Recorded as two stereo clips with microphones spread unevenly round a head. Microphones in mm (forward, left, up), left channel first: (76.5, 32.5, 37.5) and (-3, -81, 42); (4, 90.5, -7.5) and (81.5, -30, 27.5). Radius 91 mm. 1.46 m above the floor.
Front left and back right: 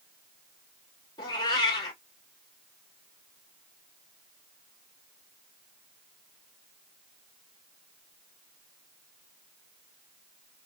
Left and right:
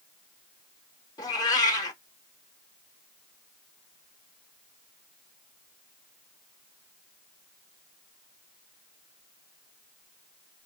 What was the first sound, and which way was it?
A cat meowing, 60° left.